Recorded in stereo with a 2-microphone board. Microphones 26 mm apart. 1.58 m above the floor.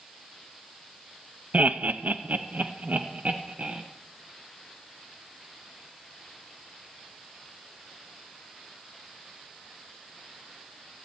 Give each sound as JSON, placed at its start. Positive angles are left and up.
{"t": 1.5, "sound": "laughter", "side_deg": -70, "distance_m": 0.8}